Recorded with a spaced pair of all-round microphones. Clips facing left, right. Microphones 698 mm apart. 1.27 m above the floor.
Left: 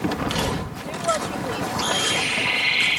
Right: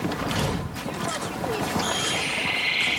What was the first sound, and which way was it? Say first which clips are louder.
A woman speaking: left 3 dB; 20° left (ahead or behind).